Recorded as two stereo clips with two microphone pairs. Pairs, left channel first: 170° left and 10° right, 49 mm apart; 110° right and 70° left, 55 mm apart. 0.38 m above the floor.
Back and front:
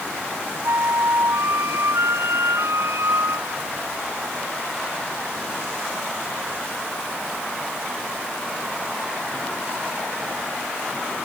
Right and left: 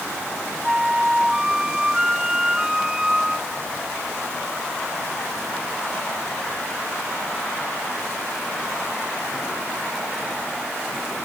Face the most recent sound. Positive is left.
turn(degrees=-10)